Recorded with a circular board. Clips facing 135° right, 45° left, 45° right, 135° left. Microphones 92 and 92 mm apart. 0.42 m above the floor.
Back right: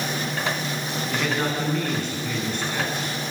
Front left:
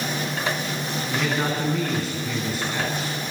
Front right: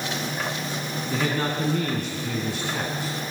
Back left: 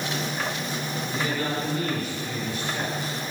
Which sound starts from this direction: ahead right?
A man speaking, at 1.1 s.